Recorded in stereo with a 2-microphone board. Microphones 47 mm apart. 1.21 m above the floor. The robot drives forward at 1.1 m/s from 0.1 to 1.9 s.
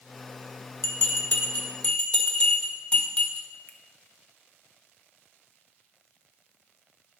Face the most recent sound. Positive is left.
turn(degrees=35)  # may be behind; listen again after turning